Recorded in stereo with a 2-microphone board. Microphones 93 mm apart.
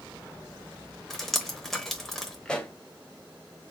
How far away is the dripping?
About 0.7 m.